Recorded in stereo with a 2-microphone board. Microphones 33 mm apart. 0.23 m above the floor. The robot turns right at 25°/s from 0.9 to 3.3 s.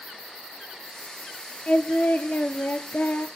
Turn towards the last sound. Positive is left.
turn(degrees=95)